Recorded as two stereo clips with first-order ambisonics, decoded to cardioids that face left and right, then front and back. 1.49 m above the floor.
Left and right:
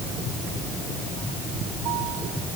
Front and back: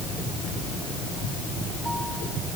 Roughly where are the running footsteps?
I don't hear running footsteps.